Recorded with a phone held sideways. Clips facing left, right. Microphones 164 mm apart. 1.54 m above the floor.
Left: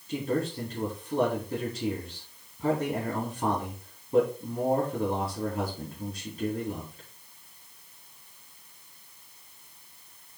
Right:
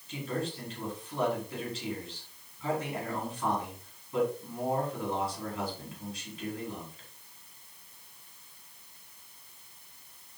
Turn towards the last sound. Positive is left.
turn(degrees=55)  # may be behind; listen again after turning